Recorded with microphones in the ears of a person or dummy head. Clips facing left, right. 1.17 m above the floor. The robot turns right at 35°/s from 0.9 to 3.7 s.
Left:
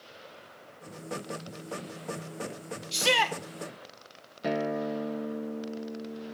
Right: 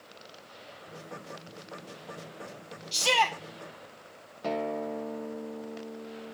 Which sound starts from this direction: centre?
A guitar, at 4.4 s.